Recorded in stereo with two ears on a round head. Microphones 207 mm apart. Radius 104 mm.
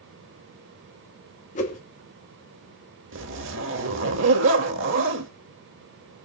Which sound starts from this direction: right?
A zipper, at 3.1 s.